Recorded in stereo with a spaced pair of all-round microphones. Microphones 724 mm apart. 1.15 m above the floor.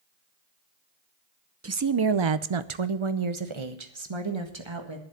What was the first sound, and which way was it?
A woman speaking, 20° right (ahead or behind).